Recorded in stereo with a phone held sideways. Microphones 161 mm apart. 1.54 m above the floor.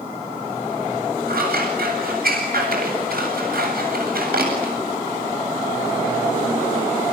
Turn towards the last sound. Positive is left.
turn(degrees=-75)  # may be behind; listen again after turning